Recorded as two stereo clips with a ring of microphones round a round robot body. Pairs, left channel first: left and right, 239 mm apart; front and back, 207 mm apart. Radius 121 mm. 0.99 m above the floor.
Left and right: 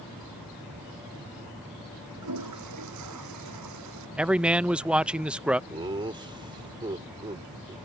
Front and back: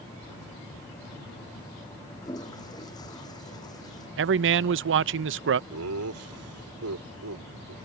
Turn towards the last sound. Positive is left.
turn(degrees=-160)